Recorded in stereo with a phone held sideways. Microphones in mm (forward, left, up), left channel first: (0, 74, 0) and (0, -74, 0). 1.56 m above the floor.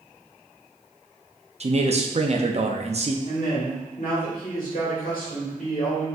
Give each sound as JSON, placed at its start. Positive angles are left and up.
{"t": 1.6, "sound": "a man speaking", "side_deg": -50, "distance_m": 0.6}
{"t": 3.2, "sound": "a man speaking", "side_deg": 75, "distance_m": 2.0}